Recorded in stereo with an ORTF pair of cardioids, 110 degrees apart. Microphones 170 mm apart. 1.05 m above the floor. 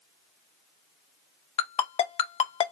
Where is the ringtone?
40° left, 0.5 m.